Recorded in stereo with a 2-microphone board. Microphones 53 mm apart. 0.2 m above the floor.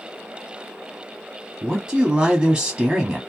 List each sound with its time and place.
1.6 s a man speaking: 15° right (ahead or behind), 1.2 m